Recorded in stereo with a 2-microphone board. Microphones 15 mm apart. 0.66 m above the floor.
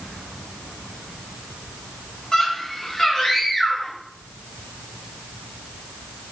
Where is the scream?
45° left (ahead or behind), 6.5 m; by 4.0 s 40° left (ahead or behind), 8.5 m.